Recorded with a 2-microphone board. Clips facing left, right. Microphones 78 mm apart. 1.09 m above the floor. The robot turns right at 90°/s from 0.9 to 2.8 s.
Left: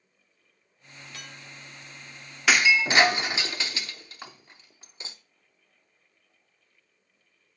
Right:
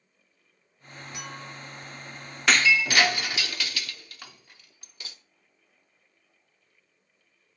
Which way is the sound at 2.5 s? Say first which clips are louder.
Left 1 dB; 5° left (ahead or behind).